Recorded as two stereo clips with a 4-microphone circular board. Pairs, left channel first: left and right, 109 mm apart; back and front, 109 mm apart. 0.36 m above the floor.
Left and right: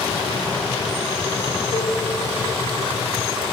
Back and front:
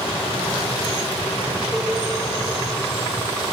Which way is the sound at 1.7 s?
90° left.